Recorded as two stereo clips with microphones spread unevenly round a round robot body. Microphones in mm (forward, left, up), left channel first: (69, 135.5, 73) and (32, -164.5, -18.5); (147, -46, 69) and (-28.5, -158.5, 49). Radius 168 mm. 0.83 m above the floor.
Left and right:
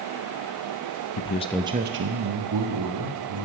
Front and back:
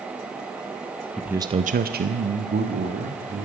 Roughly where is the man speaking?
Behind left.